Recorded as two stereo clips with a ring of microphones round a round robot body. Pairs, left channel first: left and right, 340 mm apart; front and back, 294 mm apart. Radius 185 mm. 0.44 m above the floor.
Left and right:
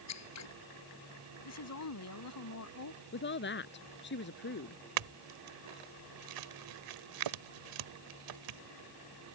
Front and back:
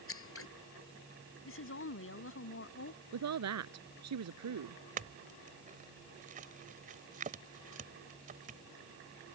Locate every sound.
0.1 s scissors: 45° left
1.4 s a woman speaking: 45° left
3.1 s a woman speaking: 150° left
5.0 s a clink: 115° right